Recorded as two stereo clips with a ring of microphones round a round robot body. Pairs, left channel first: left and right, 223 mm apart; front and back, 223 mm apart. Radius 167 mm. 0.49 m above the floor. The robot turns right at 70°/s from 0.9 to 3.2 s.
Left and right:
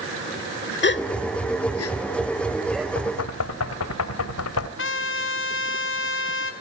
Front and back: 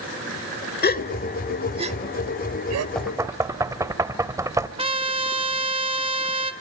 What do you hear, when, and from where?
0.8 s a gasp: 50° left, 1.1 m; by 2.9 s 175° right, 1.1 m
3.0 s knocking: 85° left, 1.4 m; by 4.7 s 105° left, 1.4 m
4.8 s a trumpet: 115° left, 1.9 m